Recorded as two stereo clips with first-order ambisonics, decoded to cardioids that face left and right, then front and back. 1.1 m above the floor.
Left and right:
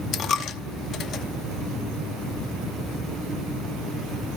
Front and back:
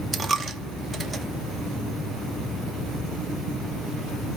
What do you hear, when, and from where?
0.1 s a dropped coin: 115° left, 0.5 m